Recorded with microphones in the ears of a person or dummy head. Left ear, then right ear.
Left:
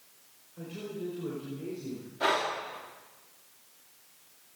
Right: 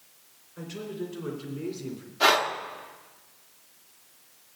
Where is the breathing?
40° right (ahead or behind), 1.2 m.